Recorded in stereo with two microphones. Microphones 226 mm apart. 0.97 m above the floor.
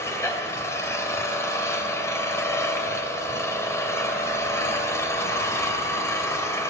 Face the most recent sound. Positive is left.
turn(degrees=10)  # may be behind; listen again after turning